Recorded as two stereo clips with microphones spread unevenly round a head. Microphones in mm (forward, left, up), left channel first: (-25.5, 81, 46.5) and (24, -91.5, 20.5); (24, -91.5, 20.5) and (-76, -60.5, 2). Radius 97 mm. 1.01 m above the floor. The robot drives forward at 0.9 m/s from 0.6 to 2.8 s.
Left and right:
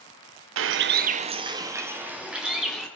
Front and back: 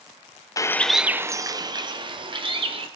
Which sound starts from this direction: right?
A bird, at 0.6 s.